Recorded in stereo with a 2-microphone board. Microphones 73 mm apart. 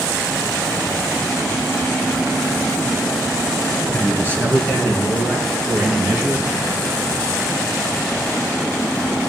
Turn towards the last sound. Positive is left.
turn(degrees=-45)  # may be behind; listen again after turning